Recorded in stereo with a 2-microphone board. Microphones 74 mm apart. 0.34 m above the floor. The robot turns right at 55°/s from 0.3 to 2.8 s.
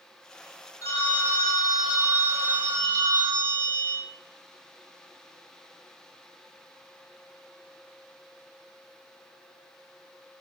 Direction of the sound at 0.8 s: 135° left.